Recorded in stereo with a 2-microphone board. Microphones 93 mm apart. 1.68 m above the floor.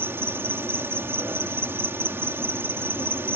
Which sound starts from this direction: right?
An insect, at 0.0 s.